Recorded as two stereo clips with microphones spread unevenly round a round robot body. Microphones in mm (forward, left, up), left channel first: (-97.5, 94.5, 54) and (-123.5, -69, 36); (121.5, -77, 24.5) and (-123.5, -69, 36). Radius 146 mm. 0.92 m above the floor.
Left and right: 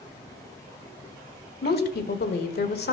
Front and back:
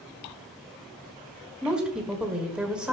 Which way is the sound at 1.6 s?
90° left.